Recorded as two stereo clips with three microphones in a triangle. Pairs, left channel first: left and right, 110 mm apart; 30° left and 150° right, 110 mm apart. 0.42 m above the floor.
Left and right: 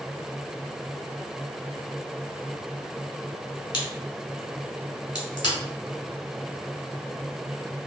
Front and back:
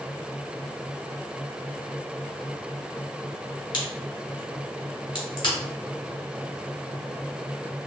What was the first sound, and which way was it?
A crack, 55° left.